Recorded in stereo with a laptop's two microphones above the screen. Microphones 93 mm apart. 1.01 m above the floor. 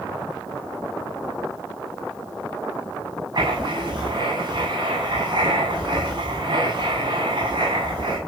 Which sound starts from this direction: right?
Writing, at 3.4 s.